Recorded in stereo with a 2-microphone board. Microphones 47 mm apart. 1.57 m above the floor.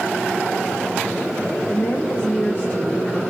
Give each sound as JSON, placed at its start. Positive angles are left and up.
{"t": 1.7, "sound": "a woman speaking", "side_deg": 45, "distance_m": 1.2}